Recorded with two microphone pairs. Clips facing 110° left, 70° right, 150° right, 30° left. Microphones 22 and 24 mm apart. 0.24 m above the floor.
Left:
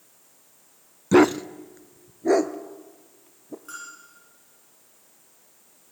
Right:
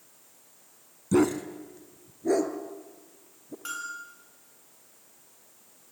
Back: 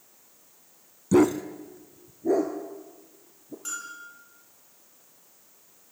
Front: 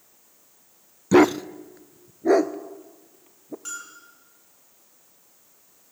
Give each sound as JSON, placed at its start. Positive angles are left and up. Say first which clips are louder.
{"t": 1.1, "sound": "a dog barking", "louder": "left 7 dB, front 4 dB", "azimuth_deg": 70, "distance_m": 0.5}
{"t": 3.6, "sound": "a bell", "louder": "right 8 dB, back 4 dB", "azimuth_deg": -55, "distance_m": 7.5}